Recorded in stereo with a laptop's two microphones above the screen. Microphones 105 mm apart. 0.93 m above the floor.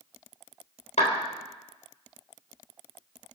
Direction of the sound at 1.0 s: 80° left.